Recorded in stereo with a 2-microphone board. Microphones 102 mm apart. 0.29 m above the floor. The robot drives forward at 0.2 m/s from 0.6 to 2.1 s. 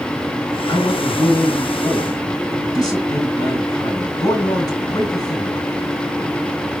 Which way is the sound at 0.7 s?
35° left (ahead or behind).